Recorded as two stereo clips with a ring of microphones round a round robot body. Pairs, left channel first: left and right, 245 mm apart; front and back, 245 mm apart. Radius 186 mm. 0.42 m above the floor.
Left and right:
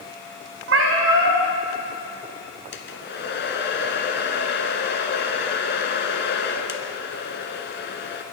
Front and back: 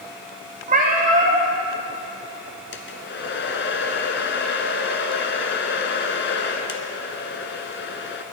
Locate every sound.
0.7 s a cat meowing: 120° right, 0.9 m
2.7 s a hair dryer: 45° left, 1.2 m